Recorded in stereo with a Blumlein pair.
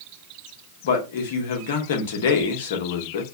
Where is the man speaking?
55° left, 1.1 m.